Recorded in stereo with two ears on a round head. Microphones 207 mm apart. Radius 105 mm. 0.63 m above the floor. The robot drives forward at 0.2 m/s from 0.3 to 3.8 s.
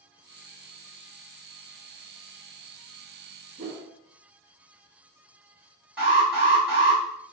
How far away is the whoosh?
About 0.9 m.